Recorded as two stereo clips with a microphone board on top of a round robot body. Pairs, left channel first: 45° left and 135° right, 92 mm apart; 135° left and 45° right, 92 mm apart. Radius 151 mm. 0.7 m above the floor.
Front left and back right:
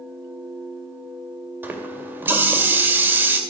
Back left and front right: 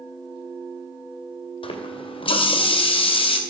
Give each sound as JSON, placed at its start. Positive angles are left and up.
{"t": 1.6, "sound": "a running tap", "azimuth_deg": 160, "distance_m": 2.5}